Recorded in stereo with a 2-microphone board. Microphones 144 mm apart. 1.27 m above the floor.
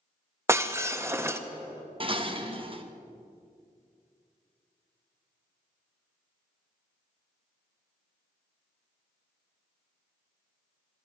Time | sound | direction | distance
0.5 | breaking glass | 20° right (ahead or behind) | 0.7 m
2.0 | dishes clattering | 40° right (ahead or behind) | 1.0 m